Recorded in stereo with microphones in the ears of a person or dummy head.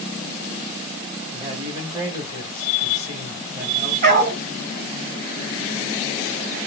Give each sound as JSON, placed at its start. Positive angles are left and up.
{"t": 1.3, "sound": "a man speaking", "side_deg": -30, "distance_m": 2.5}
{"t": 4.0, "sound": "a dog barking", "side_deg": -50, "distance_m": 2.5}